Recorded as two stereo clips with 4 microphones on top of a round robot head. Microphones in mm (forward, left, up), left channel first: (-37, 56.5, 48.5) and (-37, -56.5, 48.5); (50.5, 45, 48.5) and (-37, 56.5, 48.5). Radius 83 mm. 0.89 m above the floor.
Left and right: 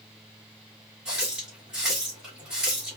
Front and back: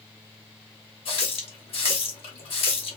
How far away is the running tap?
About 1.7 m.